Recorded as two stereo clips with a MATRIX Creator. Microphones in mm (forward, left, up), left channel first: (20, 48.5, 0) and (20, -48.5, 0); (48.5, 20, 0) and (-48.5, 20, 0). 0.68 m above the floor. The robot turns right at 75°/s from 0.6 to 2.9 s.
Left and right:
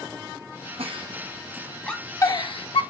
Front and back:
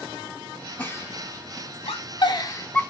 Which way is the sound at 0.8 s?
70° right.